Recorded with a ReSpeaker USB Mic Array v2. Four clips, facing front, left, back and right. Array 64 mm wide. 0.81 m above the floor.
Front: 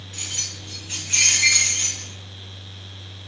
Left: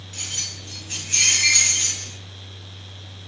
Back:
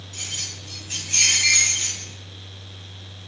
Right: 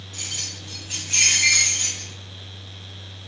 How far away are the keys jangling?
About 1.3 m.